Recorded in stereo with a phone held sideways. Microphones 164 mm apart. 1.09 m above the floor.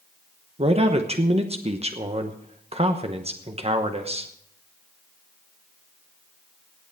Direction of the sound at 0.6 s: 40° right (ahead or behind).